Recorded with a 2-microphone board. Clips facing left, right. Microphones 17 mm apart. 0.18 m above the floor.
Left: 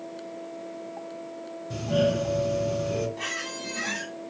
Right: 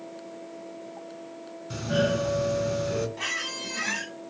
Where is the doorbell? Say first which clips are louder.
Left 1 dB; 30° right (ahead or behind), 2.0 m.